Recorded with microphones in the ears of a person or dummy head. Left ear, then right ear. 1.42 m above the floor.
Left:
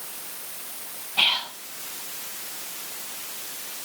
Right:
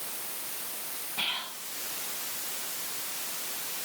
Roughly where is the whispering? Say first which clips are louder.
Left 10 dB; left.